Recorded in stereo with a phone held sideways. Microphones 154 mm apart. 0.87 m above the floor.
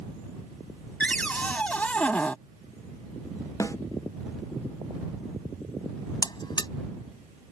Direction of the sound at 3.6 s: 20° left (ahead or behind).